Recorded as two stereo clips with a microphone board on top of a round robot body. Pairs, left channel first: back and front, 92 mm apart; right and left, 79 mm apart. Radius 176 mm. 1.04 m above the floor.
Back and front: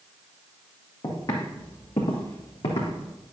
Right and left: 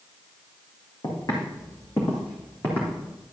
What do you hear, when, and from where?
1.0 s footsteps: 130° right, 3 m; by 3.1 s 170° right, 2.5 m